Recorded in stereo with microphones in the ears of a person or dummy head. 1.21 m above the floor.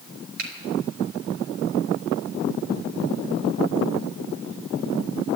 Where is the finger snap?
55° right (ahead or behind), 4 m.